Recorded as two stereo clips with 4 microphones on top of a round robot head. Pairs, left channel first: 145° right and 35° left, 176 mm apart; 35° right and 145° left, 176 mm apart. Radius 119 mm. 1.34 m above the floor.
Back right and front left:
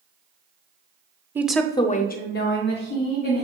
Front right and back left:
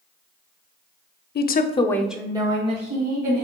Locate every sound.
1.4 s a woman speaking: 40° right, 0.7 m; by 3.5 s 170° right, 1.6 m